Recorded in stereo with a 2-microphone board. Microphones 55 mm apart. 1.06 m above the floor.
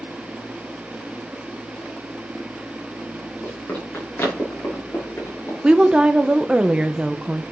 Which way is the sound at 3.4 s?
35° left (ahead or behind).